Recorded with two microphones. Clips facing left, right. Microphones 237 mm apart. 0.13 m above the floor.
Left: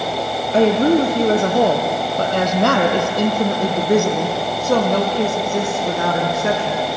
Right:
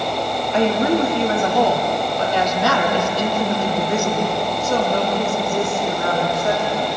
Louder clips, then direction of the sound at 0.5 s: Left 4 dB; 35° left (ahead or behind).